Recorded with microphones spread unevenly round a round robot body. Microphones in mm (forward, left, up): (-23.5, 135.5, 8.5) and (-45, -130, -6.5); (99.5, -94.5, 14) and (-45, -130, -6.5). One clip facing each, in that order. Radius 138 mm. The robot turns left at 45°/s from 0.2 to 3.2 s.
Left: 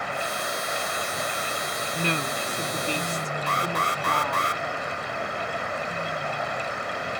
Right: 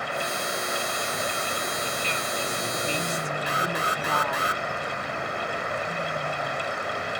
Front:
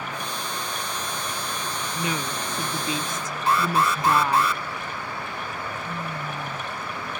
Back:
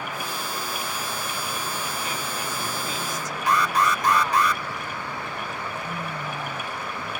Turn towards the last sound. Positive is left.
turn(degrees=-20)